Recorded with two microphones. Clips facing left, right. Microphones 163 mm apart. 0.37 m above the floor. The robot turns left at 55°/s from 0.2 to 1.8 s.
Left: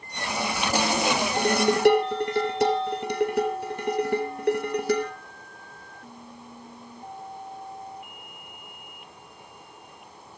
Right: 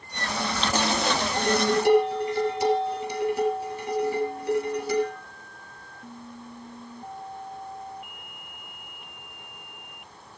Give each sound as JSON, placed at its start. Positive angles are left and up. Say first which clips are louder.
{"t": 1.4, "sound": "dishes clattering", "louder": "left 1 dB", "side_deg": 40, "distance_m": 4.0}